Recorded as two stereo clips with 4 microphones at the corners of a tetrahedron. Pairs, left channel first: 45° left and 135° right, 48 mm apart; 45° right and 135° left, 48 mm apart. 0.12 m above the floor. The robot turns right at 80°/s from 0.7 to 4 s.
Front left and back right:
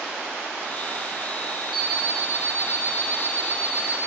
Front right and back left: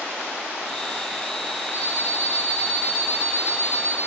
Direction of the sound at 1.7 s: 45° right.